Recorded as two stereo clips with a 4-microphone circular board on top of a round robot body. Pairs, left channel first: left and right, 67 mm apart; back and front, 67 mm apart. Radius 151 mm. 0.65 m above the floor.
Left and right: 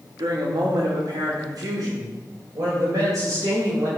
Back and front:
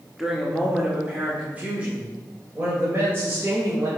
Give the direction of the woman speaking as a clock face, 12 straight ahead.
3 o'clock.